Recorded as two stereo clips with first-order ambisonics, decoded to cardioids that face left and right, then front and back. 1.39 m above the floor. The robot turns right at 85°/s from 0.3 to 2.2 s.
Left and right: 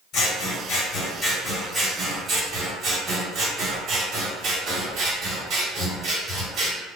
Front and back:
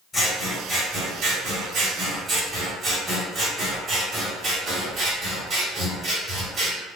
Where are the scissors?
70° left, 1.2 m; by 6.8 s 130° right, 1.2 m.